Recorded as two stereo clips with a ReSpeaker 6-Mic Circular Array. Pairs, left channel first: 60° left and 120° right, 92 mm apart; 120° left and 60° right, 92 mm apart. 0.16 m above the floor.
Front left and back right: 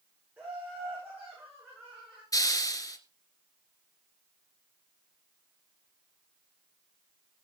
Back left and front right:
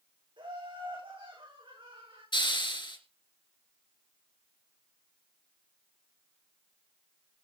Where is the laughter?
50° right, 9.5 m; by 2.2 s 60° right, 11 m.